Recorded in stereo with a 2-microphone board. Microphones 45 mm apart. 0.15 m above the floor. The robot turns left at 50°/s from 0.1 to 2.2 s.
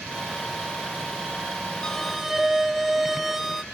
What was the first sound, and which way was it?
A violin, 15° left (ahead or behind).